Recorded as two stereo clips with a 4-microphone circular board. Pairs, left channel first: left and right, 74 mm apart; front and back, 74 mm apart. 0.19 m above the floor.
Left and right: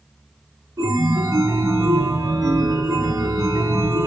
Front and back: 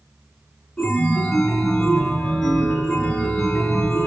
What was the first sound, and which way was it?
A chime, 85° right.